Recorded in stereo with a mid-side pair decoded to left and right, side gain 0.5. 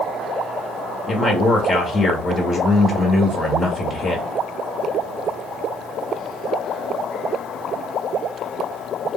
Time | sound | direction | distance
1.1 | a man speaking | 35° left | 1.1 m